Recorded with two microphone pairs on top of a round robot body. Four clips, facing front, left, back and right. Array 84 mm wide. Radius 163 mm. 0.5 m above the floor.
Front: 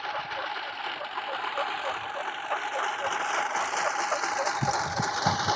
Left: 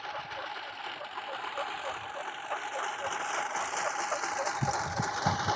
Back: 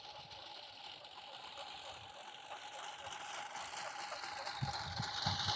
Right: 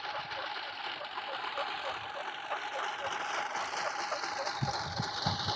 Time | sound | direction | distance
0.0 | a lawn mower | 5° right | ?